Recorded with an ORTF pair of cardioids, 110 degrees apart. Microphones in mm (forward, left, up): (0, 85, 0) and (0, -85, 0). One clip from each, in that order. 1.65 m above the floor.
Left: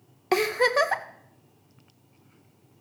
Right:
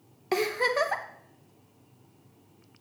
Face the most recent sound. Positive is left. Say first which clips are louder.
# left 4 dB
turn(degrees=25)